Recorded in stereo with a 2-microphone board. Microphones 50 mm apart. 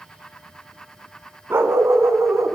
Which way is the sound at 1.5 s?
55° right (ahead or behind).